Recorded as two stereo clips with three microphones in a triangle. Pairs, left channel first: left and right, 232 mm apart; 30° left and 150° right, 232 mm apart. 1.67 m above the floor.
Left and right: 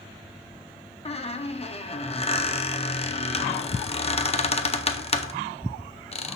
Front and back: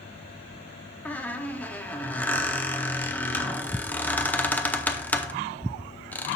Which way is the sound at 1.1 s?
105° left.